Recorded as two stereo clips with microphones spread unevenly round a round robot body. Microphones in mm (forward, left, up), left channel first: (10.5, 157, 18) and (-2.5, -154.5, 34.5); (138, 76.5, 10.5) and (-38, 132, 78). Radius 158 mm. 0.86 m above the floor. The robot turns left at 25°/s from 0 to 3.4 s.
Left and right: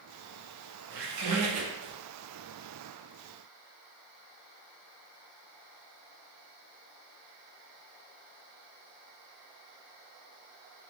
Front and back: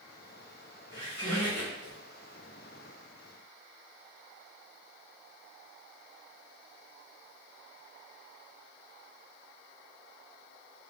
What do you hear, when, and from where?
0.9 s a squeak: 100° right, 0.6 m; by 1.9 s 125° right, 0.6 m